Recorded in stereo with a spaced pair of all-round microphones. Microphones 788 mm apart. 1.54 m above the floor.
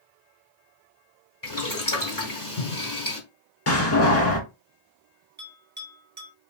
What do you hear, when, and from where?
1.4 s boiling: 25° left (ahead or behind), 1.4 m
3.7 s a door slam: 20° left (ahead or behind), 1.0 m
5.4 s a bell: 15° right (ahead or behind), 1.4 m